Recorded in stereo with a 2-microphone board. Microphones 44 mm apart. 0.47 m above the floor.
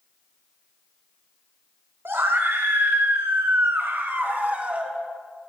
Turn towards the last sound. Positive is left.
turn(degrees=-30)  # may be behind; listen again after turning